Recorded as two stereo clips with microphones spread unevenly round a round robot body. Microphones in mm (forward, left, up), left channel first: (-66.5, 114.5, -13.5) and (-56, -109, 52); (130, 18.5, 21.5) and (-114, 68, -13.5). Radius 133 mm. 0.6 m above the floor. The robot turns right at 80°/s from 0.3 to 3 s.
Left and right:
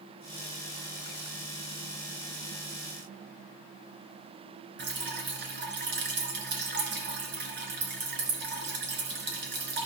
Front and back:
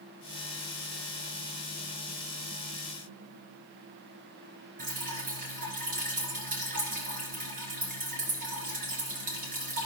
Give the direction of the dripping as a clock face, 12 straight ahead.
4 o'clock.